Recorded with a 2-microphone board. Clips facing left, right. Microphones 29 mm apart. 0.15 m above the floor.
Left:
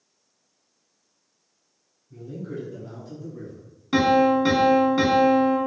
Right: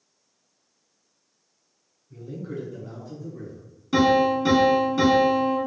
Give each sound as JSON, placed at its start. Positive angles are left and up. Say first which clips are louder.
{"t": 2.1, "sound": "a man speaking", "louder": "even", "side_deg": -25, "distance_m": 1.2}
{"t": 3.9, "sound": "a piano", "louder": "left 1 dB", "side_deg": 25, "distance_m": 0.7}